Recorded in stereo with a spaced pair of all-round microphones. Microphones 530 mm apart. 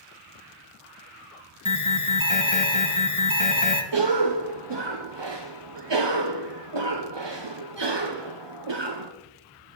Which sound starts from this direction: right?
A cough, at 3.9 s.